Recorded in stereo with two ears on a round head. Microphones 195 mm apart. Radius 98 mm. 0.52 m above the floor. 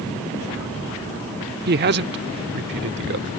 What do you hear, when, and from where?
1.7 s a man speaking: 45° right (ahead or behind); by 3.3 s 55° right (ahead or behind)